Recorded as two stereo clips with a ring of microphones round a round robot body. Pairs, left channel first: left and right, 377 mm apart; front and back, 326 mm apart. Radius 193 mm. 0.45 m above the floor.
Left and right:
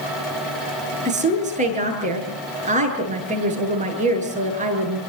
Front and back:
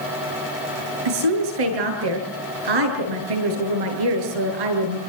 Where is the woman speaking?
160° right, 8 m.